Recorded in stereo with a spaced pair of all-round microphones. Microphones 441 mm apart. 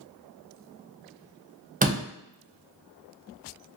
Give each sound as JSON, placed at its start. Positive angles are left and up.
{"t": 1.8, "sound": "a door slam", "side_deg": -20, "distance_m": 0.6}